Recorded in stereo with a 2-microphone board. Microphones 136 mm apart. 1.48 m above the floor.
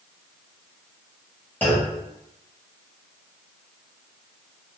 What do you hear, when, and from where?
1.6 s a clunk: 15° left (ahead or behind), 1.2 m